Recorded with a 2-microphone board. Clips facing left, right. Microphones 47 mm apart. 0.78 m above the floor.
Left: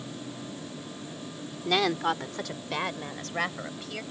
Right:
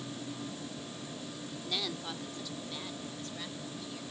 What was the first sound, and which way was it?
A woman speaking, 75° left (ahead or behind).